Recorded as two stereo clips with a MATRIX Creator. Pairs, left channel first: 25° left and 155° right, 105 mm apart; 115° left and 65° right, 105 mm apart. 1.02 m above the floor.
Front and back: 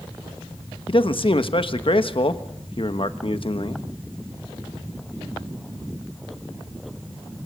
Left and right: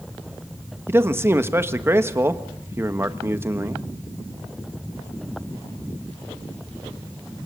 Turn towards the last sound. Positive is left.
turn(degrees=-5)